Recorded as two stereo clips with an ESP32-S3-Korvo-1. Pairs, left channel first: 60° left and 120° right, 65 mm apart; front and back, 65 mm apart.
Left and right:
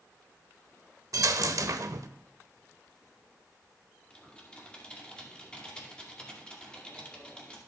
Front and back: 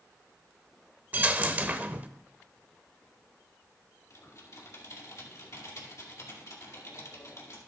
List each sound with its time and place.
1.1 s a dropped coin: 120° right, 0.6 m
4.1 s typing on a keyboard: 10° right, 2 m